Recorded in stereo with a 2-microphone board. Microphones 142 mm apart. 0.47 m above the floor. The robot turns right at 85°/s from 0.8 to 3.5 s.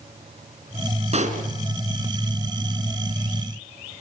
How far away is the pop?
About 3 m.